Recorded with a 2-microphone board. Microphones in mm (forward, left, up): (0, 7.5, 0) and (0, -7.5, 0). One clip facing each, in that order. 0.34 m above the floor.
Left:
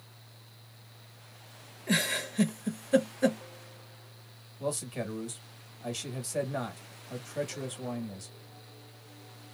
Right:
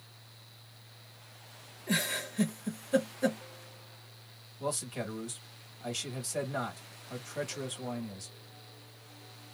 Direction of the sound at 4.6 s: 5° right (ahead or behind).